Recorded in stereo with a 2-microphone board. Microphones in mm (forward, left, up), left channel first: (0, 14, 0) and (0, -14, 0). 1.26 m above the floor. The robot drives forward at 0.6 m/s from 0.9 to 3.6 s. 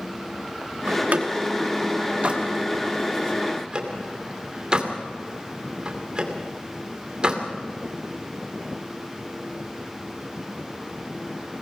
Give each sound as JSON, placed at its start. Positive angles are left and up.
{"t": 0.9, "sound": "a door slam", "side_deg": -70, "distance_m": 1.6}